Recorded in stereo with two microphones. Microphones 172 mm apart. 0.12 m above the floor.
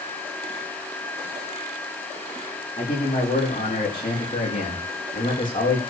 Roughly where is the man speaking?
Left.